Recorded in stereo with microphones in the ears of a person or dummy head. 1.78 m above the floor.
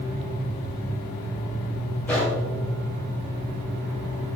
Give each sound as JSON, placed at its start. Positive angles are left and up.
{"t": 2.1, "sound": "a gunshot", "side_deg": 10, "distance_m": 1.7}